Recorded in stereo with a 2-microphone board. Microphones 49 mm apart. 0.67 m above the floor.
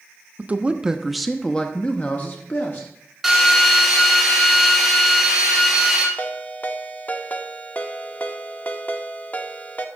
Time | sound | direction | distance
0.4 | a man speaking | 35° right (ahead or behind) | 0.7 m
3.2 | a drill | 5° right (ahead or behind) | 2.5 m
6.2 | a ringtone | 35° left (ahead or behind) | 0.9 m